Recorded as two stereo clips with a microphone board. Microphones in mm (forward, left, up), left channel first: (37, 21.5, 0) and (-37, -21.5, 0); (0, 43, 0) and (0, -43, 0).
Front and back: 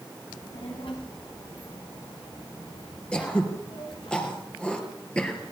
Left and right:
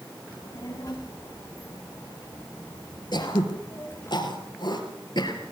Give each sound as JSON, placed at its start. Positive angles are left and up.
{"t": 0.3, "sound": "a child speaking", "azimuth_deg": 45, "distance_m": 8.5}
{"t": 3.1, "sound": "throat clearing", "azimuth_deg": 105, "distance_m": 3.5}